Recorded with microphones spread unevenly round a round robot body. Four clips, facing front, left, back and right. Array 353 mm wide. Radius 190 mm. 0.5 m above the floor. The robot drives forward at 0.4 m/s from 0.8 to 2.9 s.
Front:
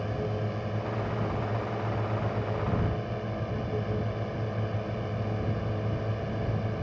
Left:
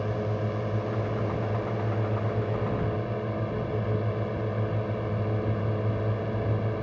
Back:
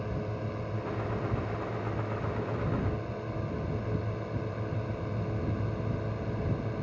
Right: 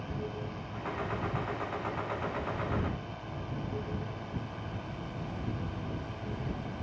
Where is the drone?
75° left.